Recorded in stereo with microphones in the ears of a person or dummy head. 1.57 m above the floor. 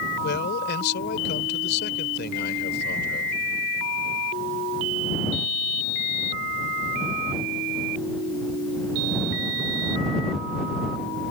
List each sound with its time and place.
0.2 s a man speaking: 60° left (ahead or behind)